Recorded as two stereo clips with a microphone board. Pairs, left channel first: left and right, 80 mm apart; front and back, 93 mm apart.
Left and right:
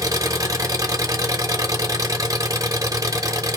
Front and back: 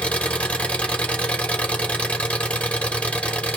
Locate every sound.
0.0 s an engine running: 70° right, 0.8 m